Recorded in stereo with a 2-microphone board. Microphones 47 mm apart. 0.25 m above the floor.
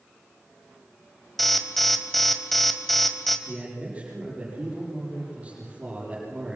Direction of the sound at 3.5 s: 30° right (ahead or behind).